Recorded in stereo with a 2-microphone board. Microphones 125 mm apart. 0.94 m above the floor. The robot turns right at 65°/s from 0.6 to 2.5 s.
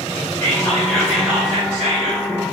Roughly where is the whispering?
Behind left.